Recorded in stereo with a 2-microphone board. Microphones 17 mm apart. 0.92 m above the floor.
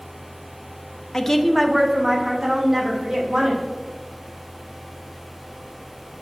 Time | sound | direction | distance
1.1 | a woman speaking | 35° left (ahead or behind) | 0.6 m